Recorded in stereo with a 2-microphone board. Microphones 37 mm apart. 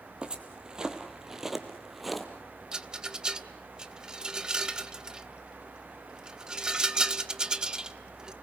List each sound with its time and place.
0.2 s footsteps: 25° right (ahead or behind), 2.5 m; by 2.3 s centre (ahead or behind), 2 m
2.7 s a rattle: 20° right (ahead or behind), 1.1 m